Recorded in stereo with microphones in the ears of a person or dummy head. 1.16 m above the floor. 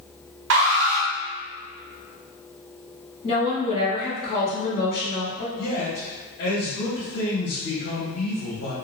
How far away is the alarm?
About 0.8 m.